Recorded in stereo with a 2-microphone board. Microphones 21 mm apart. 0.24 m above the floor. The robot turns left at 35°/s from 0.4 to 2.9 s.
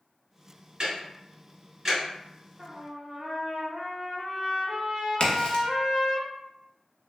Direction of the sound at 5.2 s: 40° left (ahead or behind).